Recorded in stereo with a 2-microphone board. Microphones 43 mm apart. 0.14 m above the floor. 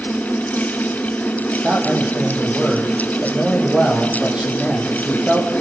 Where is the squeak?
No squeak in this recording.